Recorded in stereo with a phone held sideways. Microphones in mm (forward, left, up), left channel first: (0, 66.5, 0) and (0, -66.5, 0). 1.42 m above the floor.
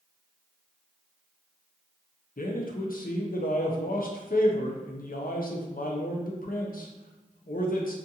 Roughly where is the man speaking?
Left.